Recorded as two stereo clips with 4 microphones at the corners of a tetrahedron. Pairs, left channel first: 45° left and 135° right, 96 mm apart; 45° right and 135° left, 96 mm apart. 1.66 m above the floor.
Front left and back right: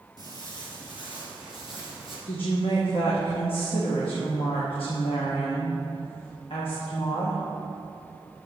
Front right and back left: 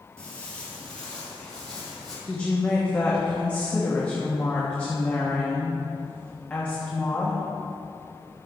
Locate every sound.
0.2 s footsteps: 30° left, 2.5 m; by 2.2 s 35° left, 4 m
2.3 s a woman speaking: 30° left, 1.5 m